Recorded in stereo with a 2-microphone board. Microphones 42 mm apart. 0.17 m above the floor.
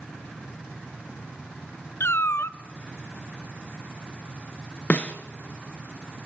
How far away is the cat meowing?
About 0.7 m.